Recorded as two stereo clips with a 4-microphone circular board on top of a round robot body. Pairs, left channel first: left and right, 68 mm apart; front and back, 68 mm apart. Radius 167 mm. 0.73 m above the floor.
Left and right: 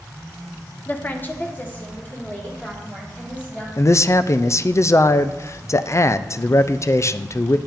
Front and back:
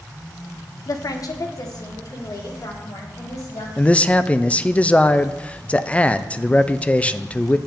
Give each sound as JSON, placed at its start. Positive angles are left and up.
{"t": 0.9, "sound": "a woman speaking", "azimuth_deg": 30, "distance_m": 0.7}
{"t": 3.8, "sound": "a man speaking", "azimuth_deg": 65, "distance_m": 0.5}